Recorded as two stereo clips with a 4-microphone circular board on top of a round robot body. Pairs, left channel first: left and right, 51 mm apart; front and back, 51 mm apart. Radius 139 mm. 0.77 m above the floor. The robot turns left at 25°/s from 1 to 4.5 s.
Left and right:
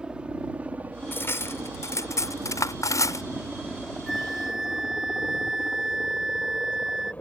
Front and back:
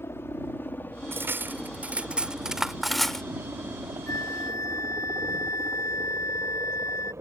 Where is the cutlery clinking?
135° left; by 3.2 s 80° left.